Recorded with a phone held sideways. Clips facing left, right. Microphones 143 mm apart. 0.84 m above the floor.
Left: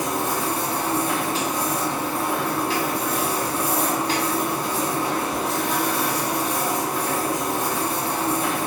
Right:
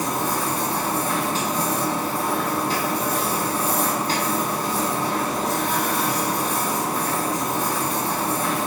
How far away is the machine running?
About 1.2 m.